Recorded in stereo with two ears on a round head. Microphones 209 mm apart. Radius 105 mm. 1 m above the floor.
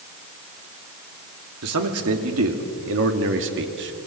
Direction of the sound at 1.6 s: 70° right (ahead or behind).